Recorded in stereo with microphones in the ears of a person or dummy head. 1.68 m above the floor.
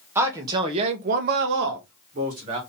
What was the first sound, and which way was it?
A man speaking, 15° right (ahead or behind).